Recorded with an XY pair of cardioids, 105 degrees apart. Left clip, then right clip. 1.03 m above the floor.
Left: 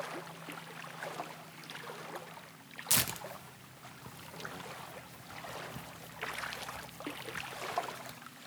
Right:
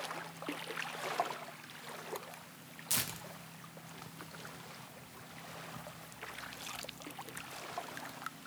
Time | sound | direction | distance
2.9 | tearing paper | 40° left | 0.7 m